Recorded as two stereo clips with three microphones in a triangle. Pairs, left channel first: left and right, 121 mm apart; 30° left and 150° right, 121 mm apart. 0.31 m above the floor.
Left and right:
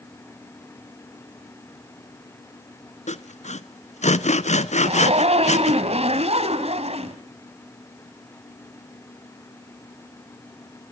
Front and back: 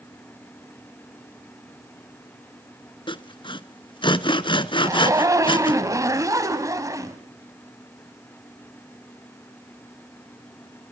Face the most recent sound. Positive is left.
turn(degrees=-90)